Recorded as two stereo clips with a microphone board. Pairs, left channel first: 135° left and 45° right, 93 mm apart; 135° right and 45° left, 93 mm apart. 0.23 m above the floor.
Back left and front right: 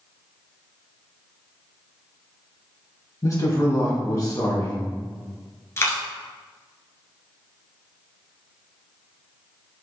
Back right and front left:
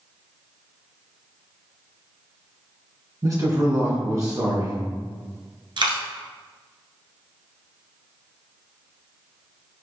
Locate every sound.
3.2 s a man speaking: 90° left, 2.0 m
5.8 s a dropped coin: 75° left, 1.1 m